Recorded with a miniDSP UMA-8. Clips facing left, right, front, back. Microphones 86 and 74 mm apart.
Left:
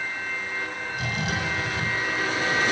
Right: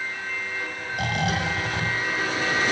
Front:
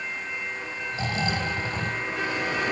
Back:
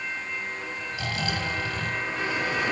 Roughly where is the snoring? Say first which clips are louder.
Right 5 dB, front 3 dB; ahead right.